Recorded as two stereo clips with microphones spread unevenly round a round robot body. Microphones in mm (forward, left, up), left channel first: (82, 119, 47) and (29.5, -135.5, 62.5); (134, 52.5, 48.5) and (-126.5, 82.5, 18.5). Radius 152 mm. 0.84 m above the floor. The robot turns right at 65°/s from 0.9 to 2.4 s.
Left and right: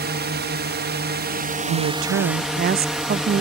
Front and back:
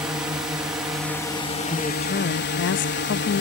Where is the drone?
110° right; by 3.4 s 10° right.